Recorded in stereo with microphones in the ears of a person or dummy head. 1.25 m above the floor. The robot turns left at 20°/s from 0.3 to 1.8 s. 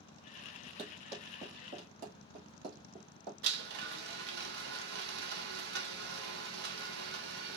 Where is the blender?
60° right (ahead or behind), 1.2 m.